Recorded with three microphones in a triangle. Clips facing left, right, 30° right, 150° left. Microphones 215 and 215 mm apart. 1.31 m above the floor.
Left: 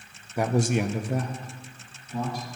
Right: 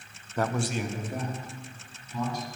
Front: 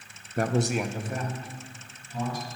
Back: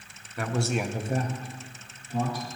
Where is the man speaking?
10° left, 0.7 m; by 2.5 s 120° left, 2.5 m.